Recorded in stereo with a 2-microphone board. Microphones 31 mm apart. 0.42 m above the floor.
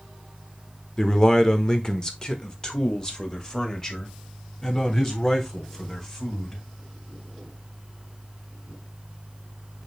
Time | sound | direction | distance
1.0 | a man speaking | 20° left (ahead or behind) | 1.2 m